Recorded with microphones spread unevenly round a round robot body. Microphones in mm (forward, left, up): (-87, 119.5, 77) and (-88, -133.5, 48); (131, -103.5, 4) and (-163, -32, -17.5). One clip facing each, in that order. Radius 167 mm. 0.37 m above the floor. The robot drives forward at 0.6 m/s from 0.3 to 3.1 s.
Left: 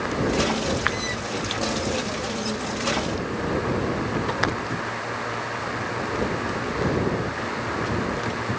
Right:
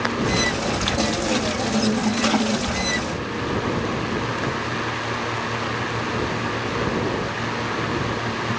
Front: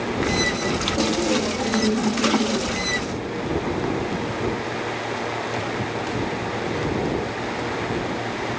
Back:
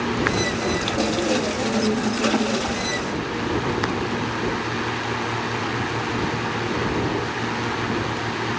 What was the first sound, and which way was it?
Only background noise.